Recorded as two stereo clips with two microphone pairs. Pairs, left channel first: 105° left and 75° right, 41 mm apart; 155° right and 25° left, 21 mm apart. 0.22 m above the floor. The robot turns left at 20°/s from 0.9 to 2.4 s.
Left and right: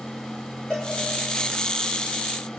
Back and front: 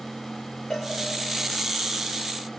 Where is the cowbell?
175° left, 7 m.